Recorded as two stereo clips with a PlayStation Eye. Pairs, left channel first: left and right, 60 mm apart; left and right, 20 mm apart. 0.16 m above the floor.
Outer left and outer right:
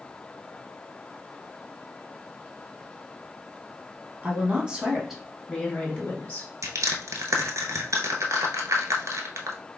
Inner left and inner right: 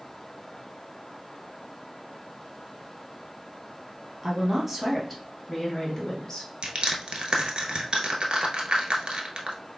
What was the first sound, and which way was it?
A woman speaking, 25° right (ahead or behind).